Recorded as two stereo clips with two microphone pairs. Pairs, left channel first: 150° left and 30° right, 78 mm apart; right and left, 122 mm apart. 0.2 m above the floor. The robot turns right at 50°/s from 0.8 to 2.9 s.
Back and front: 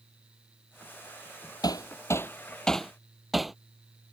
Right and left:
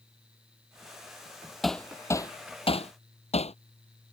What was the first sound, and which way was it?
Hammering, straight behind.